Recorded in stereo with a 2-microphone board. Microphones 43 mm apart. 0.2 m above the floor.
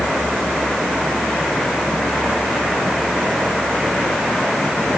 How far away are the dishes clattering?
No dishes clattering in this recording.